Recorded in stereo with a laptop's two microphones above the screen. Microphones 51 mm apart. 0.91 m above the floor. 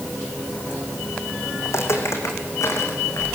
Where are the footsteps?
60° left (ahead or behind), 3.5 m; by 3.2 s 70° left (ahead or behind), 4.5 m.